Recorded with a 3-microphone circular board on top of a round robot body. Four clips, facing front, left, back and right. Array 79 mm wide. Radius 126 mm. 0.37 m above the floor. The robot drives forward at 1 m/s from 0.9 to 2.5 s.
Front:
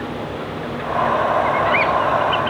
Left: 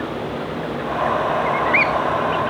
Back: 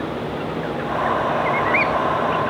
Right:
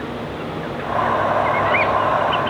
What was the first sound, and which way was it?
Only background noise.